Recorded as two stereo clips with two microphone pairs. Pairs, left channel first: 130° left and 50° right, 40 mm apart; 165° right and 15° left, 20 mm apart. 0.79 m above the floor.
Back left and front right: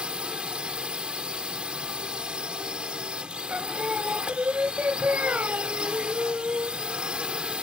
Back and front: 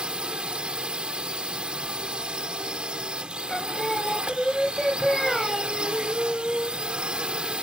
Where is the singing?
90° right.